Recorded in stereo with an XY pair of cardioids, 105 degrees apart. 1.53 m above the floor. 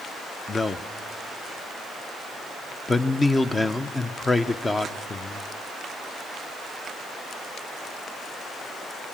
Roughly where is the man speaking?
Ahead left.